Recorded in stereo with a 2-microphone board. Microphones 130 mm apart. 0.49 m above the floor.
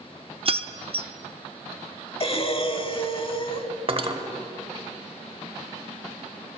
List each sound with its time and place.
0.5 s keys jangling: 45° right (ahead or behind), 0.5 m
2.2 s breathing: 45° left (ahead or behind), 0.8 m
3.9 s cutlery clinking: 45° right (ahead or behind), 1.0 m